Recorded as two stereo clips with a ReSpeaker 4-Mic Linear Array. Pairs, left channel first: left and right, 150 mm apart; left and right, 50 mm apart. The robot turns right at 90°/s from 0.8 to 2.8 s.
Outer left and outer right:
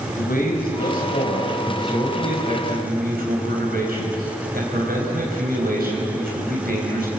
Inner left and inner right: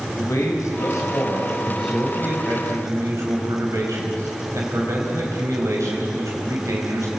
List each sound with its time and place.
0.2 s a man speaking: 85° left, 4.5 m; by 7.1 s 95° right, 4.5 m